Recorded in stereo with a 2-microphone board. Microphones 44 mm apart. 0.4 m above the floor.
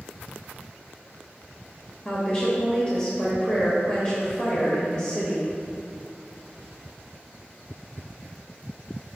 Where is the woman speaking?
30° left (ahead or behind), 1.2 m.